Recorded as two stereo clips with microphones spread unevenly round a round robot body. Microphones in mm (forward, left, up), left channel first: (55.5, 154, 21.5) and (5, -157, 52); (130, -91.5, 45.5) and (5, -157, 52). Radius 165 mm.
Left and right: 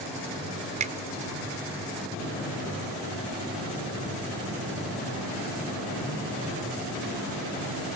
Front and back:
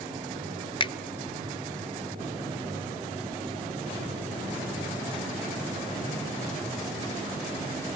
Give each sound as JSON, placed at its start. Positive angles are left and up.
{"t": 0.8, "sound": "a finger snap", "azimuth_deg": -30, "distance_m": 0.7}